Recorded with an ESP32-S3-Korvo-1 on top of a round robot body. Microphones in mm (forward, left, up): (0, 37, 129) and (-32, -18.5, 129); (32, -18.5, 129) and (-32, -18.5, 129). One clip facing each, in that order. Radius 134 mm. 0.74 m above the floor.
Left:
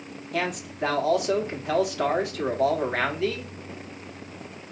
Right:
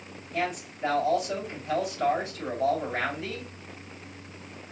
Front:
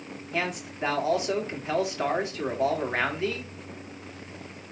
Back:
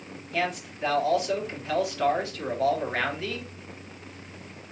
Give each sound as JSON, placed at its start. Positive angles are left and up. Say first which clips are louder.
{"t": 0.3, "sound": "a man speaking", "louder": "left 2 dB, back 1 dB", "azimuth_deg": 65, "distance_m": 1.6}